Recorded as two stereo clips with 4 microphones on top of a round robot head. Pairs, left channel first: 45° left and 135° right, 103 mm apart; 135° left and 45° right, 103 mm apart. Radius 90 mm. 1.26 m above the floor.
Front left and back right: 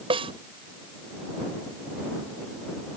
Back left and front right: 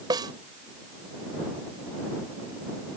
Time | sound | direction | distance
0.1 | a snare drum | 100° right | ?